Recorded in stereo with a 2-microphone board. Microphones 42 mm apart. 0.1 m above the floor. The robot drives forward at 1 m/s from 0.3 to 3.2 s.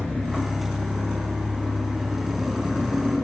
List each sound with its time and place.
0.0 s an engine running: 10° left (ahead or behind), 7.5 m; by 3.2 s 15° left (ahead or behind), 5 m